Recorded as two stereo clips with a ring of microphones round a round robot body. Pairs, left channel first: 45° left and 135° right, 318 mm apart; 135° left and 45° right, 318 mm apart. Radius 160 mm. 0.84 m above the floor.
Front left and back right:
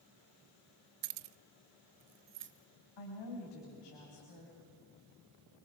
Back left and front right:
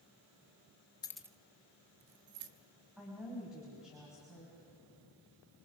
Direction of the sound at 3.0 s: 45° left.